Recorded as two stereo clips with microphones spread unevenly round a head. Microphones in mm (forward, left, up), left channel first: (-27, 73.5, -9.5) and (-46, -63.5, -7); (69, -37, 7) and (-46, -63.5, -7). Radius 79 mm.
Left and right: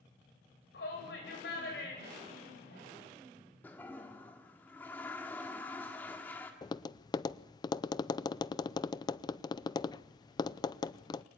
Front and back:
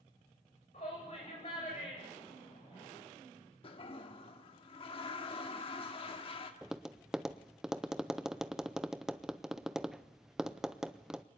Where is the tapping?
95° left, 0.5 m.